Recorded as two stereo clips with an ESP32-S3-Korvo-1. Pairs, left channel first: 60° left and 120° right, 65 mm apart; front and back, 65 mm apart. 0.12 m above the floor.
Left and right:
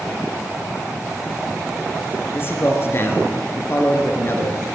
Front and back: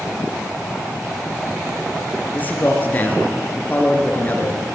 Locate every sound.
2.3 s a man speaking: 45° left, 1.5 m